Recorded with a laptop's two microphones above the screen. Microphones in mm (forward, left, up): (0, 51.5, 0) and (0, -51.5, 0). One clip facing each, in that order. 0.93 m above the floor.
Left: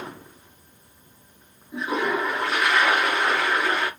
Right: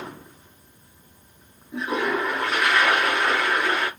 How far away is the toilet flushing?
About 1.5 m.